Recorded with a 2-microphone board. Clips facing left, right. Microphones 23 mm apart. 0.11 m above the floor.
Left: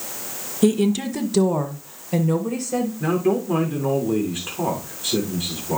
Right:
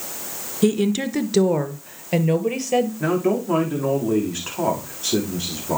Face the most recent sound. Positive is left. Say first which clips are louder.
# even
turn(degrees=-65)  # may be behind; listen again after turning